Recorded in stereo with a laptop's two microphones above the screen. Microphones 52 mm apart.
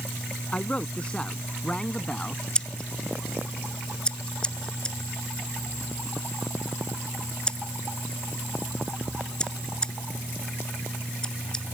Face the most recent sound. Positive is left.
turn(degrees=20)  # may be behind; listen again after turning